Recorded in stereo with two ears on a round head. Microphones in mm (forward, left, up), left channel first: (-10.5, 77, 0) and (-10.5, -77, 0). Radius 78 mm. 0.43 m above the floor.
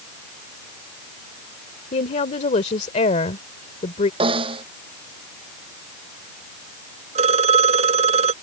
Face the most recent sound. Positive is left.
turn(degrees=-35)  # may be behind; listen again after turning